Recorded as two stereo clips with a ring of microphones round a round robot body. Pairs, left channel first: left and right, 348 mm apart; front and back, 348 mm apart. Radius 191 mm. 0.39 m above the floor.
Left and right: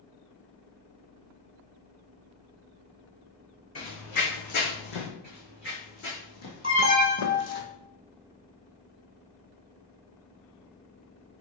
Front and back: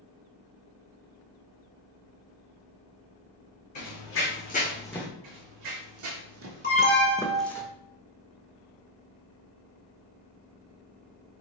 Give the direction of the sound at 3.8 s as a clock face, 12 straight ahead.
11 o'clock.